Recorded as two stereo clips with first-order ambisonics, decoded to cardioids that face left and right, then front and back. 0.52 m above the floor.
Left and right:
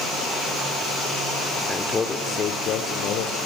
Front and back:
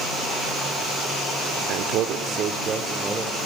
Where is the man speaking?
175° left, 1.0 m; by 3.4 s 100° left, 1.3 m.